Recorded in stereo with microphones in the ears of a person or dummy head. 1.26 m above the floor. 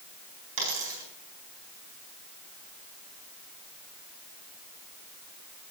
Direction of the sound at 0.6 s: 75° right (ahead or behind).